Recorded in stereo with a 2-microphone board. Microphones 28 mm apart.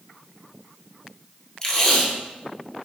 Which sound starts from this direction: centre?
Tape being pulled, at 1.6 s.